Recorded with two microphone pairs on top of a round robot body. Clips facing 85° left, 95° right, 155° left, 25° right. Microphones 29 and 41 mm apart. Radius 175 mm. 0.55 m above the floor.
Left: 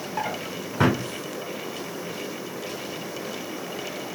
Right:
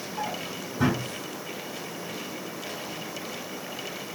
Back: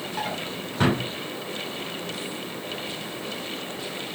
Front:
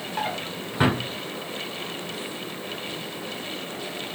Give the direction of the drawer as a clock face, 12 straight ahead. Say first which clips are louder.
Left 3 dB, front 2 dB; 10 o'clock.